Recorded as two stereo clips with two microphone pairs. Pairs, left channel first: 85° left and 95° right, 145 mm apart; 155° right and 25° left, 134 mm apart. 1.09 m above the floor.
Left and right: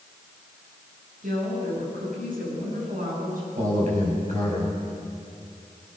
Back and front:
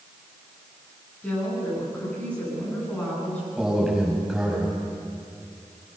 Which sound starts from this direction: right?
A woman speaking, at 1.2 s.